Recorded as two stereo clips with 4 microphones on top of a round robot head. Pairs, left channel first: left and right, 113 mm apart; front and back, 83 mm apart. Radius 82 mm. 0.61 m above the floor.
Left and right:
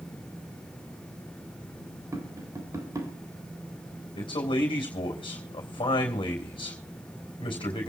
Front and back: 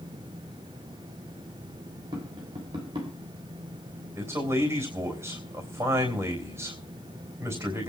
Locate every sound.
2.1 s tapping: 150° right, 3.5 m
4.2 s a man speaking: 130° left, 3.5 m